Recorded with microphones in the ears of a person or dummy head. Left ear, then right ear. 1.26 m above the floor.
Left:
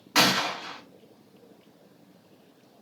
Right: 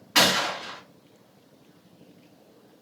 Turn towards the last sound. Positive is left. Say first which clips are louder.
# right 1 dB
turn(degrees=10)  # may be behind; listen again after turning